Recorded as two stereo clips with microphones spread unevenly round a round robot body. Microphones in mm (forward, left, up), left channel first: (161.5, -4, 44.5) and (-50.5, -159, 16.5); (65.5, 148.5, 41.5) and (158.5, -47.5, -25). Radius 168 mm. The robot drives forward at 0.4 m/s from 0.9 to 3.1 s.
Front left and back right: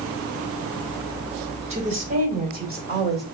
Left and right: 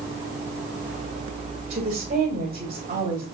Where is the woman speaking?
90° right, 1.9 m; by 3.2 s 115° right, 2.0 m.